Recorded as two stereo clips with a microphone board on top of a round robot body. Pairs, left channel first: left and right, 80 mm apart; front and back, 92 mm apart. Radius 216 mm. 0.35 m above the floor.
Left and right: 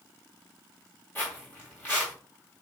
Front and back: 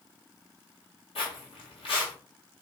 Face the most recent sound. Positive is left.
turn(degrees=20)